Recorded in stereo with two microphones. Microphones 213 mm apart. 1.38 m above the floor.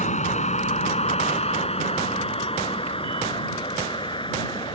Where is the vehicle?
35° left (ahead or behind); by 4.8 s 20° left (ahead or behind).